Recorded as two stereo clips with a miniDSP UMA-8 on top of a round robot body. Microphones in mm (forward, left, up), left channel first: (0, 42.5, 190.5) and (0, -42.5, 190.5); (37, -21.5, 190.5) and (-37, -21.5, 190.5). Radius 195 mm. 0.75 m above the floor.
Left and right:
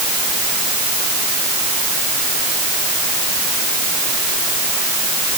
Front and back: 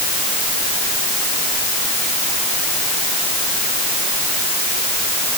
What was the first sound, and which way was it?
Only background noise.